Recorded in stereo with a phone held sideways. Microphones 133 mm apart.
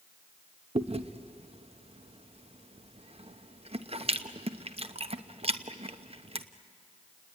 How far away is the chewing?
About 0.9 m.